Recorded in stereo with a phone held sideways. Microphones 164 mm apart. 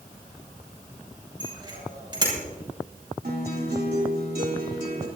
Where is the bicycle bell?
30° right (ahead or behind), 6.5 m.